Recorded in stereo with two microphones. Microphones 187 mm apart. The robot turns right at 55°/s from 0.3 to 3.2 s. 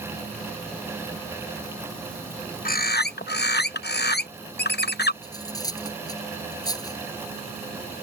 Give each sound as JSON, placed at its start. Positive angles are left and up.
{"t": 2.6, "sound": "a bird", "azimuth_deg": 60}
{"t": 5.2, "sound": "cutlery clinking", "side_deg": 20}